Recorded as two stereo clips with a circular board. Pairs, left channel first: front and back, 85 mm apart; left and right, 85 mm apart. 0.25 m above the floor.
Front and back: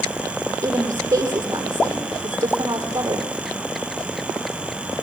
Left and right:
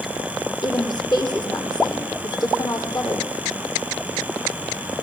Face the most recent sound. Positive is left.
turn(degrees=130)